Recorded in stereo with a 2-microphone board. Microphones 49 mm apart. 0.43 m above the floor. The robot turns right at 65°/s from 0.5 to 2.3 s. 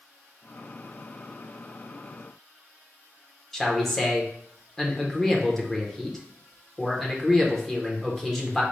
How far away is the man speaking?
About 0.8 m.